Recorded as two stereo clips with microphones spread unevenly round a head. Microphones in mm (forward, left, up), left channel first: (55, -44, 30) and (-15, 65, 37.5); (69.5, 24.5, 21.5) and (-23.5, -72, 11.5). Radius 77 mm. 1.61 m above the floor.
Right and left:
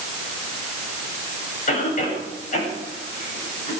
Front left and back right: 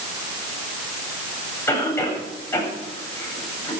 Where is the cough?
25° right, 9 m.